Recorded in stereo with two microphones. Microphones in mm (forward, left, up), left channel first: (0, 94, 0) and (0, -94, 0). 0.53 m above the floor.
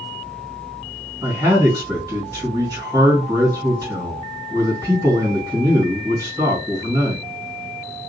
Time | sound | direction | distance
1.2 | a man speaking | 15° right (ahead or behind) | 2 m